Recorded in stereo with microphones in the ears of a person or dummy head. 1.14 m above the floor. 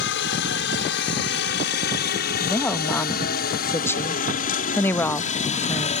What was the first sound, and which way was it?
A helicopter, 60° left (ahead or behind).